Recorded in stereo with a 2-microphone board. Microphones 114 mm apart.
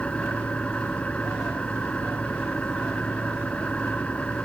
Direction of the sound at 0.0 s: 10° left (ahead or behind).